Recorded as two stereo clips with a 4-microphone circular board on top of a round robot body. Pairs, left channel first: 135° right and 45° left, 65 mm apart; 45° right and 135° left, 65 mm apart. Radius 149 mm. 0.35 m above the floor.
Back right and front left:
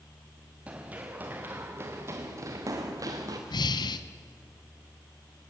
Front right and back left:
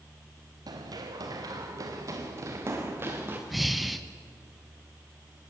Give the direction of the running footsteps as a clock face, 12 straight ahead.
8 o'clock.